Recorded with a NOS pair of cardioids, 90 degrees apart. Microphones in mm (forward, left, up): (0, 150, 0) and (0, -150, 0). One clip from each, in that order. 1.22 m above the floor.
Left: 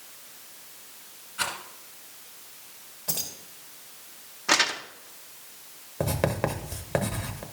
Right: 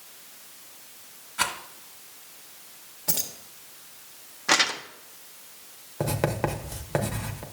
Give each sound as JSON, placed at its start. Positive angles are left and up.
{"t": 1.4, "sound": "a rattle", "azimuth_deg": -30, "distance_m": 1.7}
{"t": 3.1, "sound": "keys jangling", "azimuth_deg": -30, "distance_m": 1.3}
{"t": 4.5, "sound": "crumpling", "azimuth_deg": -5, "distance_m": 0.7}
{"t": 6.0, "sound": "writing", "azimuth_deg": 0, "distance_m": 0.9}